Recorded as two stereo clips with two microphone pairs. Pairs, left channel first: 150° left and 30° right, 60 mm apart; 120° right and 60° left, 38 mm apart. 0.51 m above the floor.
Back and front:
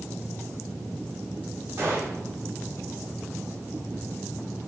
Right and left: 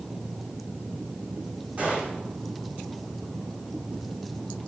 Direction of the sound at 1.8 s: 15° left.